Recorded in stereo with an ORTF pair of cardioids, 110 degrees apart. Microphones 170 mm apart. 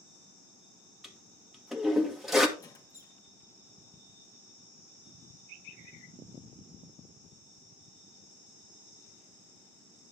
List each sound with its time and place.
1.0 s a toilet flushing: straight ahead, 1.9 m
2.6 s a squeak: 20° left, 2.0 m